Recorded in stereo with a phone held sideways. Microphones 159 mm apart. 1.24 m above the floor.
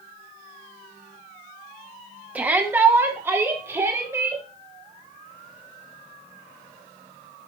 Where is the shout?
10° right (ahead or behind), 2 m; by 4.4 s 15° right (ahead or behind), 5.5 m.